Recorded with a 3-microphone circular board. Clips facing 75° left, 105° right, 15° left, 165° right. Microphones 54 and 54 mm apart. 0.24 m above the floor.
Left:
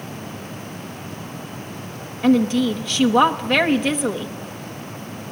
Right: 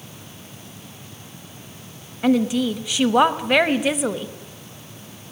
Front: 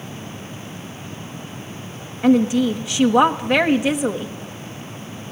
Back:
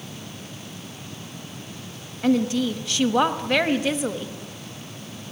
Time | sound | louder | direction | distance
2.2 | a woman speaking | left 2 dB, front 5 dB | 30° right | 1.1 m